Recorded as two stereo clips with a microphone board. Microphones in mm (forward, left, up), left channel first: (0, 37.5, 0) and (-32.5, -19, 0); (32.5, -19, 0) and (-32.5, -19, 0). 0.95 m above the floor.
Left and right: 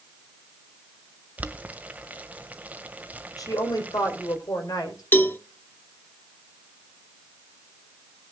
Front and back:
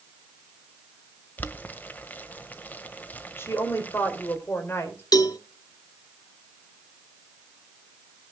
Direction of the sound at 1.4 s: 55° right.